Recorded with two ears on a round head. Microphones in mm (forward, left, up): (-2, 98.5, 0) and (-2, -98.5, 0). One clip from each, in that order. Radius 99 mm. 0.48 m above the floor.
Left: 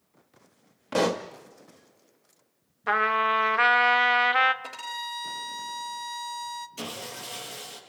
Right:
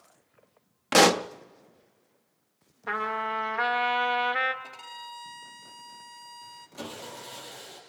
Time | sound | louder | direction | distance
0.9 | a pop | right 6 dB | 55° right (ahead or behind) | 0.5 m
2.9 | a trumpet | left 7 dB | 30° left (ahead or behind) | 0.8 m
4.6 | a violin | left 7 dB | 50° left (ahead or behind) | 1.0 m
6.8 | sawing | left 3 dB | 80° left | 5.5 m